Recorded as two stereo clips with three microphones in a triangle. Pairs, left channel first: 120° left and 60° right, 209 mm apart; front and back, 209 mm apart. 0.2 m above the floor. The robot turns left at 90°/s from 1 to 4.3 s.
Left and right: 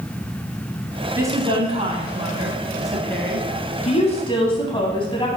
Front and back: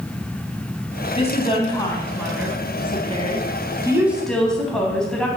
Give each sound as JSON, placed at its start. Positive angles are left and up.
{"t": 1.2, "sound": "a woman speaking", "azimuth_deg": 5, "distance_m": 1.1}